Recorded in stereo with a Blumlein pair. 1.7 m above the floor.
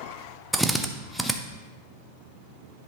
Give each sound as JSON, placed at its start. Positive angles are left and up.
{"t": 0.5, "sound": "a drill", "azimuth_deg": 0, "distance_m": 0.6}